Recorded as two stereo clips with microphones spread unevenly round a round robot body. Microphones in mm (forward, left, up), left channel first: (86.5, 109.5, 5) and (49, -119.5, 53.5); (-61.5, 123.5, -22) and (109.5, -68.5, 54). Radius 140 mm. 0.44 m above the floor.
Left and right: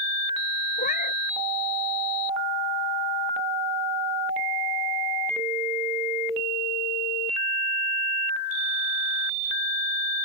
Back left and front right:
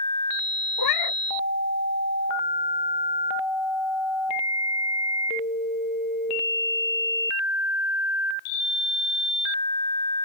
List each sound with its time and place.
0.8 s a cat meowing: 145° left